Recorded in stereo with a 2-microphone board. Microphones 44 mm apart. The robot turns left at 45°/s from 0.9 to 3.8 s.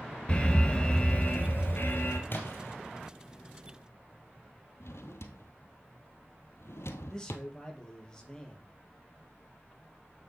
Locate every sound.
0.3 s an alarm: 150° left, 3 m; by 2.2 s 90° left, 3 m
2.3 s a splash: 55° left (ahead or behind), 3 m; by 2.8 s 70° left (ahead or behind), 3 m
4.8 s a drawer: 75° left (ahead or behind), 1.3 m
7.1 s a man speaking: 20° left (ahead or behind), 5 m